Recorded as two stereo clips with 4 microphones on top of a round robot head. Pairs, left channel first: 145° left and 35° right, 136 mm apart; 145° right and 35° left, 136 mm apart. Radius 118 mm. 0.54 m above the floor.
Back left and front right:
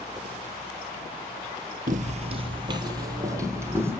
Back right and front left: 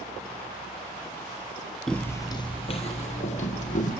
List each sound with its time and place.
1.9 s footsteps: 60° right, 0.7 m; by 3.9 s 110° right, 1.6 m